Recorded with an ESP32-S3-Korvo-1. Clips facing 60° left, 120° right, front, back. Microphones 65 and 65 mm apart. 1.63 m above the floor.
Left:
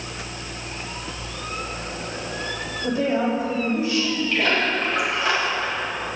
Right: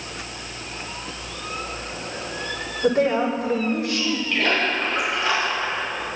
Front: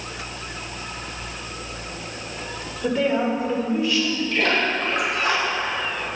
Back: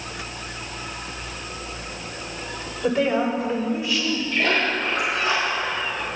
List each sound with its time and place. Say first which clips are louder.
2.8 s a woman speaking: right 3 dB, even; 95° right, 5.5 m
4.3 s a splash: even, even; 25° right, 6 m